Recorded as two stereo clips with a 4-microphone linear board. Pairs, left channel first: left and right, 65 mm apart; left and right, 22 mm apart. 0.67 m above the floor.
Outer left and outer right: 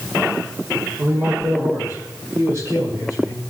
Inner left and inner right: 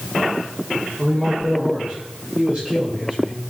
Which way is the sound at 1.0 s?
45° right (ahead or behind).